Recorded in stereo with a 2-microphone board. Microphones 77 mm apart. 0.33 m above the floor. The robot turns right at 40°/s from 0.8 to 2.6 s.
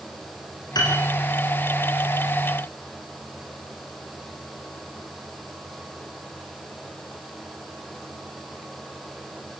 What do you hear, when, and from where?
0.8 s a piano: 60° left (ahead or behind), 6.5 m; by 0.9 s 55° left (ahead or behind), 6.5 m